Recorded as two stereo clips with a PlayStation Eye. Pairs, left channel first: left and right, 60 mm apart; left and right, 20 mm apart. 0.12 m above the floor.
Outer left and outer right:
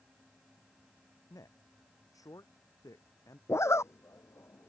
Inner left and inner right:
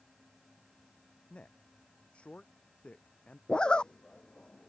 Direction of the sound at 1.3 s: 80° left.